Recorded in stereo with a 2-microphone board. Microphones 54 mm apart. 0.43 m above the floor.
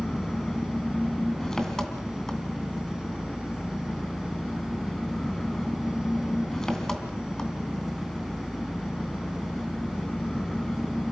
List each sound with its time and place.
0.0 s an engine running: 10° left (ahead or behind), 2 m